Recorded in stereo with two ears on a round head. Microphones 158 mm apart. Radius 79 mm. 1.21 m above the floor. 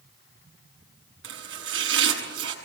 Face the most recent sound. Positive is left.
turn(degrees=-80)